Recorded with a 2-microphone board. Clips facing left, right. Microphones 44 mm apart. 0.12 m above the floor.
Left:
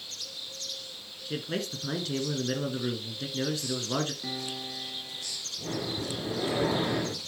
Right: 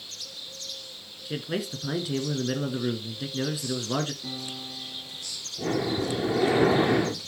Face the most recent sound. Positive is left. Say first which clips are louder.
# right 8 dB
turn(degrees=-55)  # may be behind; listen again after turning